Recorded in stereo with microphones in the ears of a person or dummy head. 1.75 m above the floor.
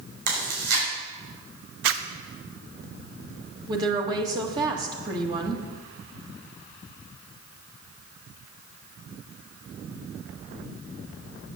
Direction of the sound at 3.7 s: 20° right (ahead or behind).